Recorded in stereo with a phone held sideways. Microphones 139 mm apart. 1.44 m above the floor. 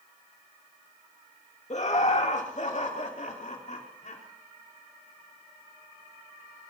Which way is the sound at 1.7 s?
55° left (ahead or behind).